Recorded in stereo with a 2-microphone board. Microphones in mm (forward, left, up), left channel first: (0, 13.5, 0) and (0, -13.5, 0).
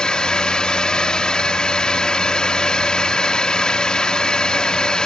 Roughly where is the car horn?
No car horn in this recording.